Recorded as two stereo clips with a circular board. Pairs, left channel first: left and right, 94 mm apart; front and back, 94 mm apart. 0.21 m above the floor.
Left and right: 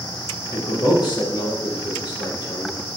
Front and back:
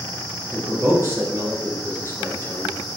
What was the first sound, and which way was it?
A man speaking, 120° left.